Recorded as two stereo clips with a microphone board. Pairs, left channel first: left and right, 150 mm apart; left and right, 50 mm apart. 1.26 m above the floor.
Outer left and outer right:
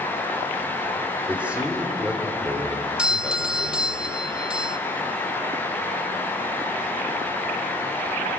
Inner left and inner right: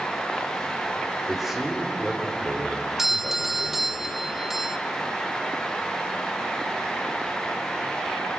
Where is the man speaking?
10° right (ahead or behind), 3 m; by 4.0 s 5° right (ahead or behind), 5 m.